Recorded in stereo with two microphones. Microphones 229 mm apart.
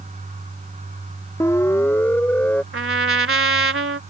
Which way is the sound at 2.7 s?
70° right (ahead or behind).